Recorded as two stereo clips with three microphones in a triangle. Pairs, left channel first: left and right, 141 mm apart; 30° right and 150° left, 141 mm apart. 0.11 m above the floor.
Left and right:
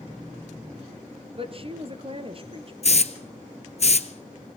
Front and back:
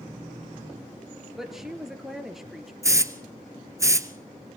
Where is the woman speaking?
125° right, 1.9 m.